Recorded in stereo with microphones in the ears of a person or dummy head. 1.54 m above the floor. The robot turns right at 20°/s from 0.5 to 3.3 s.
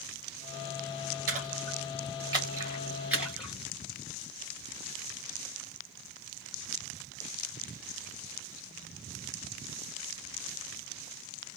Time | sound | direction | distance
1.3 | a splash | 45° right (ahead or behind) | 2 m